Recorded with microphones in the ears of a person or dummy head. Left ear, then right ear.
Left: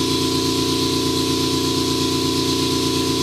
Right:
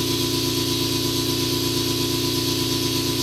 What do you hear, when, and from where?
0.0 s an engine running: 15° right (ahead or behind), 1.7 m